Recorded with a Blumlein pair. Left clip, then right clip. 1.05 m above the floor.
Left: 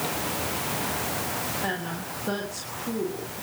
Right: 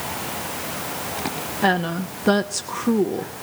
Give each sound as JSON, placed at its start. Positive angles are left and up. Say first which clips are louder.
{"t": 1.6, "sound": "a woman speaking", "louder": "right 9 dB", "azimuth_deg": -60, "distance_m": 1.1}